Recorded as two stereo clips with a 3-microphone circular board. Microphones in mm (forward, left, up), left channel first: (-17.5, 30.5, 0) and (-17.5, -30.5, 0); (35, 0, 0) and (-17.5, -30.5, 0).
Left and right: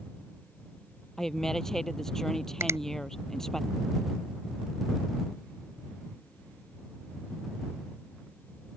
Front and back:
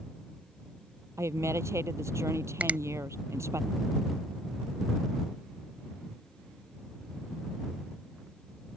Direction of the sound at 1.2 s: 175° left.